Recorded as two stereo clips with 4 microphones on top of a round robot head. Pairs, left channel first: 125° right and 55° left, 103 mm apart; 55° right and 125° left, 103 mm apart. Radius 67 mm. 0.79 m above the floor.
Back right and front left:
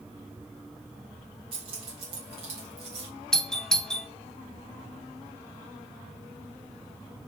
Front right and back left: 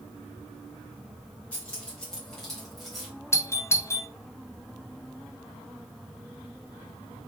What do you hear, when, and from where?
1.5 s keys jangling: 25° left, 4 m; by 3.1 s 35° left, 4 m
3.3 s a doorbell: 50° right, 0.8 m